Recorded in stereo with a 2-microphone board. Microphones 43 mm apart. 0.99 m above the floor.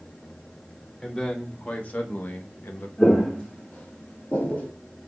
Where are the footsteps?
20° left (ahead or behind), 1.4 m; by 4.7 s 35° left (ahead or behind), 1.1 m.